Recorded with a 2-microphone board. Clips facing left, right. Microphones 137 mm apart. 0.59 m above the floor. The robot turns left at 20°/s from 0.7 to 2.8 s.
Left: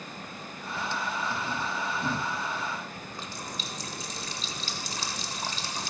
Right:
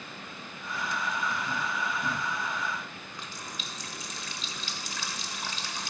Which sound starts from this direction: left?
A running tap, at 3.0 s.